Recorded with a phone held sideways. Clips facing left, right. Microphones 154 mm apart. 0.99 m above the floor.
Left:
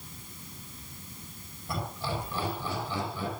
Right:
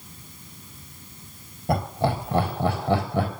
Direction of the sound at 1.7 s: 65° right (ahead or behind).